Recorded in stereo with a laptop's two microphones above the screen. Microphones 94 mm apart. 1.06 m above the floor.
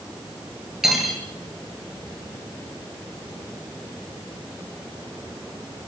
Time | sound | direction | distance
0.8 | cutlery clinking | 5° right (ahead or behind) | 9.5 m